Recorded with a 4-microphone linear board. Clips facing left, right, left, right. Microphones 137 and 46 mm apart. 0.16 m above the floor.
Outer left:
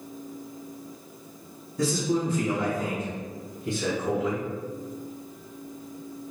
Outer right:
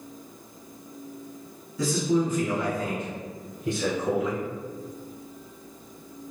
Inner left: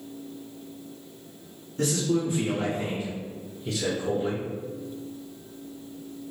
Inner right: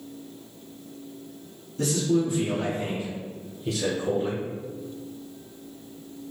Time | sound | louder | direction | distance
1.8 | a man speaking | outer right 2 dB, inner right 2 dB | 45° left (ahead or behind) | 1.7 m